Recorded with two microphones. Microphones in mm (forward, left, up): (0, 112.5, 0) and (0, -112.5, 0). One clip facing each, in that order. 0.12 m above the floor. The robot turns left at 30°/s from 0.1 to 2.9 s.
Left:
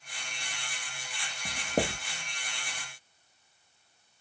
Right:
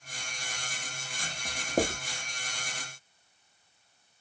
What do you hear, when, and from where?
1.4 s writing: 15° left (ahead or behind), 1.2 m; by 2.0 s centre (ahead or behind), 1.2 m